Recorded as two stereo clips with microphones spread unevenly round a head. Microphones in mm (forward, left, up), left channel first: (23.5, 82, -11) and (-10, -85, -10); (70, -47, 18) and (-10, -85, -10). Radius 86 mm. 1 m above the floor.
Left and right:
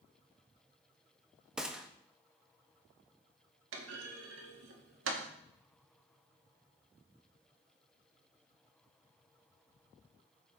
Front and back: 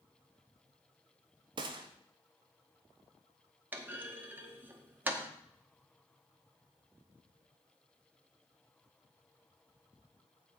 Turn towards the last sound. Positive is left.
turn(degrees=-90)